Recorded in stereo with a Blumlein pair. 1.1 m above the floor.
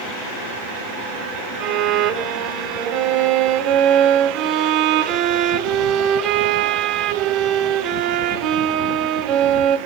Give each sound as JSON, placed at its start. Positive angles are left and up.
{"t": 1.6, "sound": "a violin", "azimuth_deg": -35, "distance_m": 0.5}